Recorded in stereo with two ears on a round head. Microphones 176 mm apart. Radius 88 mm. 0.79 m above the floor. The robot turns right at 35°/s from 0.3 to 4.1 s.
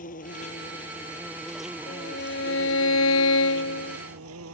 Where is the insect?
135° left; by 4.5 s 90° right.